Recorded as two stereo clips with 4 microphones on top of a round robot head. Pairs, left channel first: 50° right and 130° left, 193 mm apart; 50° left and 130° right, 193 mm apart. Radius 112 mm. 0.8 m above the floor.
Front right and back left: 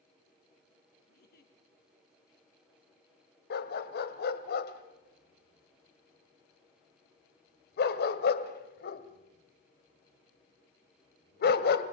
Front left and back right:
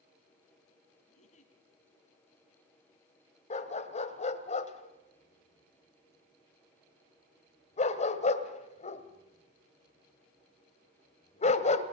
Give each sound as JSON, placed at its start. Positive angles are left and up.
{"t": 1.1, "sound": "a giggle", "azimuth_deg": -10, "distance_m": 3.5}
{"t": 3.5, "sound": "a dog barking", "azimuth_deg": -10, "distance_m": 1.8}